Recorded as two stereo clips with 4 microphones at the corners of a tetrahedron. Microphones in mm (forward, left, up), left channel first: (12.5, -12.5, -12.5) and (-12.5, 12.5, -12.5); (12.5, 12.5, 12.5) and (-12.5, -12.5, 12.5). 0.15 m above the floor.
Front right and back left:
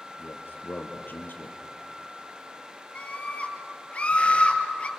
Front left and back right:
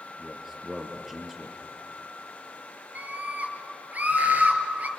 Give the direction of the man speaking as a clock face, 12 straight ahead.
2 o'clock.